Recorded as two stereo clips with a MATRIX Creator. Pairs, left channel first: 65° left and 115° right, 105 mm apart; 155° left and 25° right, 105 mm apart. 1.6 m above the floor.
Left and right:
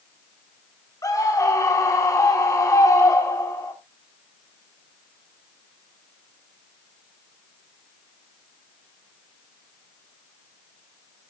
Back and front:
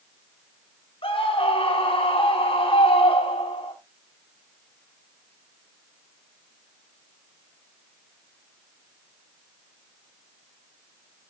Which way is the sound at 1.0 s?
125° left.